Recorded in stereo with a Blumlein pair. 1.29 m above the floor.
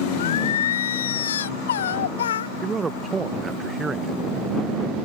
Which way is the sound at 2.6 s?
15° right.